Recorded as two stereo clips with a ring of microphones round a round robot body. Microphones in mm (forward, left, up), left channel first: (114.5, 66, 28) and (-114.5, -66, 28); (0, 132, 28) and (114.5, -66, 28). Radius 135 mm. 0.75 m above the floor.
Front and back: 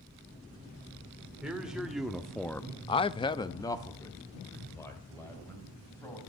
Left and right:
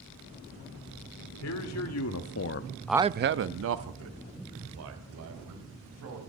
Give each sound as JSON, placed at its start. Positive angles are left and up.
{"t": 1.4, "sound": "a man speaking", "azimuth_deg": 125, "distance_m": 2.0}